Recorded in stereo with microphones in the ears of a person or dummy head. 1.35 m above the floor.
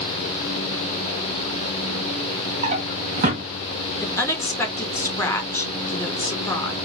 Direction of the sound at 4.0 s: 15° left (ahead or behind).